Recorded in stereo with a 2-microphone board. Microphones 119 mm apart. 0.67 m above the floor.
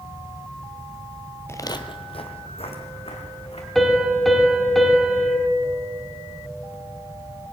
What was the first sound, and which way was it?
Footsteps, 20° left (ahead or behind).